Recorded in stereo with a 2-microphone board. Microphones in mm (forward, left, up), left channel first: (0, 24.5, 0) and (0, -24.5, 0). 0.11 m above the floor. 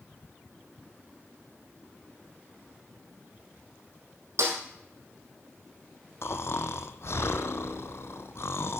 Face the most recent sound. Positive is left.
turn(degrees=65)  # may be behind; listen again after turning